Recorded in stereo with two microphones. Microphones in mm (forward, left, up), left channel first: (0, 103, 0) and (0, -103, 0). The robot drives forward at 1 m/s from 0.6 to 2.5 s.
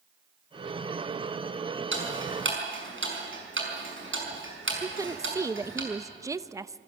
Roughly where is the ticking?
Right.